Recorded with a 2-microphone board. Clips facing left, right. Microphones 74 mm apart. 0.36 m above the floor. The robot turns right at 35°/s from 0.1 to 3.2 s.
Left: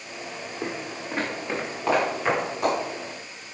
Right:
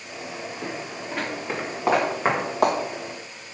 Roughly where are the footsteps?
Left.